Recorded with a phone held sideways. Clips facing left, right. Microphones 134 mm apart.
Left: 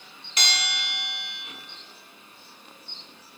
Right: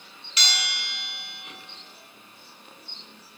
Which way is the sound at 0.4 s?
50° left (ahead or behind).